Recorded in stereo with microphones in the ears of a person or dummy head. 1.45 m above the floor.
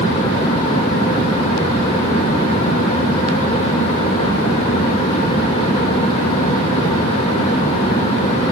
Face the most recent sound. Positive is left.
No sound to turn to.